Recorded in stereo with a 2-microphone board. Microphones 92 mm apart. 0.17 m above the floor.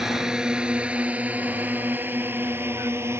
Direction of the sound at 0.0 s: 5° right (ahead or behind).